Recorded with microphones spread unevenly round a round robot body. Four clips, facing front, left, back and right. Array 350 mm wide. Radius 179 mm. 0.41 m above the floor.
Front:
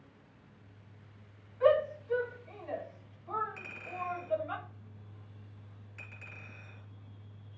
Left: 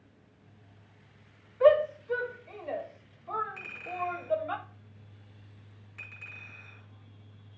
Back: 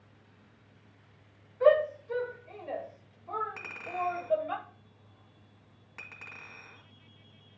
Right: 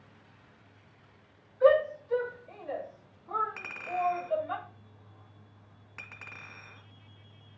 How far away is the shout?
About 4 m.